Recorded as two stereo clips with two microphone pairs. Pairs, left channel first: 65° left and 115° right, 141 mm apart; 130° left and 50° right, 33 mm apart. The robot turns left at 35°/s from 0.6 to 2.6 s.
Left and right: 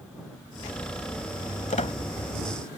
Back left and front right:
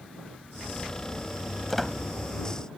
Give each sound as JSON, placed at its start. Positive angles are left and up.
{"t": 1.7, "sound": "a squeak", "azimuth_deg": 40}